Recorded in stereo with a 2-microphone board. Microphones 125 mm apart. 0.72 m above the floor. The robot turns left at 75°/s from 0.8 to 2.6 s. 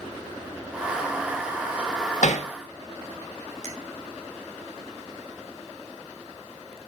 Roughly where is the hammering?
Left.